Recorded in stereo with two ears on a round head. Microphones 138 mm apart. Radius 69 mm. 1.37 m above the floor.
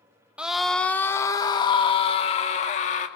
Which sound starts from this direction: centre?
A scream, at 0.4 s.